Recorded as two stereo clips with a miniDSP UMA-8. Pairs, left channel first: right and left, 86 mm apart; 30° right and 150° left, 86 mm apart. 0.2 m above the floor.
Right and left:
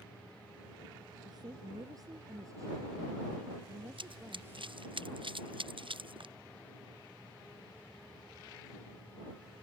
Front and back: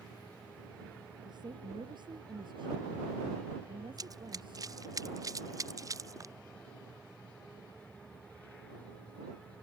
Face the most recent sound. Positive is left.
turn(degrees=100)